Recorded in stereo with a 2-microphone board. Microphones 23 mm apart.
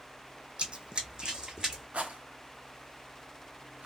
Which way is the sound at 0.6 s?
50° right (ahead or behind).